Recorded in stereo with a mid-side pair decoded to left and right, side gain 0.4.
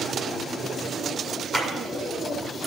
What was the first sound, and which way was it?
A clap, 15° left.